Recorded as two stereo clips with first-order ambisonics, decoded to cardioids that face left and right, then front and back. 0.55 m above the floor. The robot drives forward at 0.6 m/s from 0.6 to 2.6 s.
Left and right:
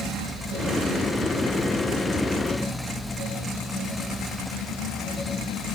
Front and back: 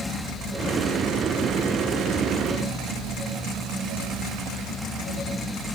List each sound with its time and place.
Only background noise.